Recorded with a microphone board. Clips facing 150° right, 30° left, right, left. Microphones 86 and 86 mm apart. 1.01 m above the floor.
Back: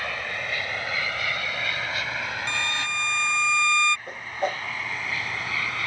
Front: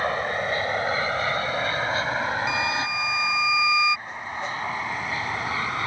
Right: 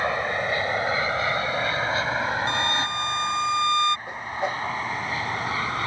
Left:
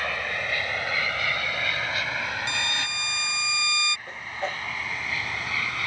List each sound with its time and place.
0.0 s an aircraft: 25° right; by 5.9 s 30° right
2.5 s a violin: 50° right
4.1 s a whoosh: 160° right